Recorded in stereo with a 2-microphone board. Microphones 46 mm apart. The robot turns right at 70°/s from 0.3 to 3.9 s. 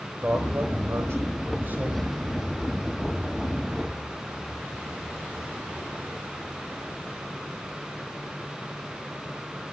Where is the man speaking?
150° right, 4.5 m; by 2.1 s 20° right, 4.5 m.